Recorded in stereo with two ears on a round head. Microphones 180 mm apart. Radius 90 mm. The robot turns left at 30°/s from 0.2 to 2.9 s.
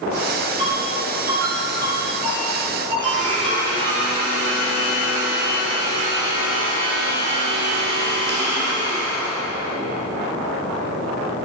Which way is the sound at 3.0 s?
65° right (ahead or behind).